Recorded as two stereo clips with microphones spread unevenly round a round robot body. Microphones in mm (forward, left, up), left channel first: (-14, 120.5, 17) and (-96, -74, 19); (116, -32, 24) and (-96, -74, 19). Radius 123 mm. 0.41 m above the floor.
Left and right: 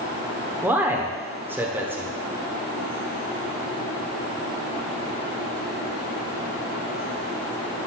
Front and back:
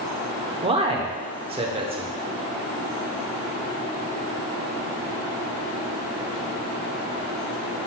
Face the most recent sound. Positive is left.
turn(degrees=175)